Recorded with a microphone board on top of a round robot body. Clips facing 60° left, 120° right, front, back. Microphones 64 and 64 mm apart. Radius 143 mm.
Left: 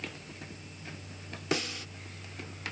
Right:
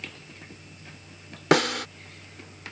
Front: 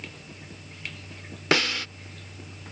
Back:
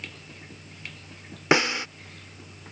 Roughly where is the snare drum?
Right.